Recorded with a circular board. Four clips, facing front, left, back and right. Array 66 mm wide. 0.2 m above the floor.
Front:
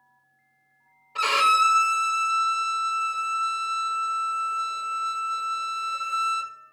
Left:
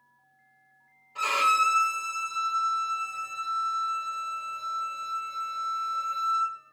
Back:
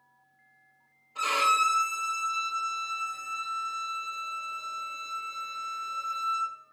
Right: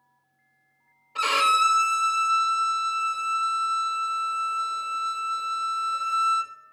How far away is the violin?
About 0.5 m.